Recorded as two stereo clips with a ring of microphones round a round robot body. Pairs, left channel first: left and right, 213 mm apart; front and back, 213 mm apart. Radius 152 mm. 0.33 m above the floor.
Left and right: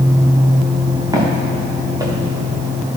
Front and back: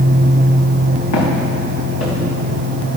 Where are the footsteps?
15° right, 2.5 m.